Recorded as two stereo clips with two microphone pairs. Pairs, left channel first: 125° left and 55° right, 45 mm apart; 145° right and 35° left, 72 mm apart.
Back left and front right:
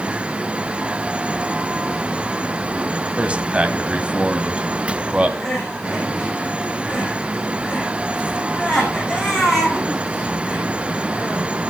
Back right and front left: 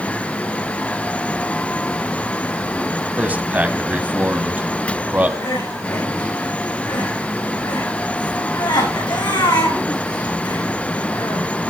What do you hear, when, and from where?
3.2 s a man speaking: 15° right, 1.7 m
5.4 s crying: 150° right, 7 m